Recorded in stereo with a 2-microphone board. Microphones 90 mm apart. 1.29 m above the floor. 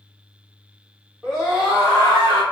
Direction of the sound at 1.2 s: 5° left (ahead or behind).